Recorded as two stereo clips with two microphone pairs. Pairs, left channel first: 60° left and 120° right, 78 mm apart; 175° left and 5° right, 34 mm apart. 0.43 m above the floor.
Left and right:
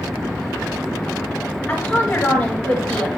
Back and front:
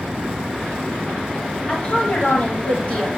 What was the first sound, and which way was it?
A woman speaking, 130° left.